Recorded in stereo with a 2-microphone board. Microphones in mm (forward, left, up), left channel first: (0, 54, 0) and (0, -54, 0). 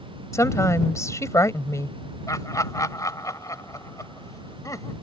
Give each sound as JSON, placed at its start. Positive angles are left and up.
{"t": 0.3, "sound": "a woman speaking", "side_deg": 30}
{"t": 2.3, "sound": "laughter", "side_deg": 30}